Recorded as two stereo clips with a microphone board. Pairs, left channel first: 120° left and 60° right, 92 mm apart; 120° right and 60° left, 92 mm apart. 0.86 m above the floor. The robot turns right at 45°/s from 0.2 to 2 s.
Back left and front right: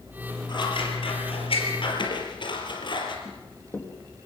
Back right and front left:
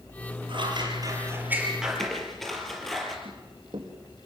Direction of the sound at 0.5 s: 85° left.